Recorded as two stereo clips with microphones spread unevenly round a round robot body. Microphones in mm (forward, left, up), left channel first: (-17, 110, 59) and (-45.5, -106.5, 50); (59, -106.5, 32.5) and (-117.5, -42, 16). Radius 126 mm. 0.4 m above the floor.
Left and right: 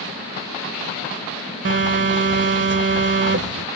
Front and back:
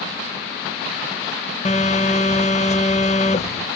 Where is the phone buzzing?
75° right, 1.3 m.